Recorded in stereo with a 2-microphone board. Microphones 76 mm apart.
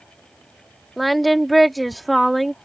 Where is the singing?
Centre (ahead or behind).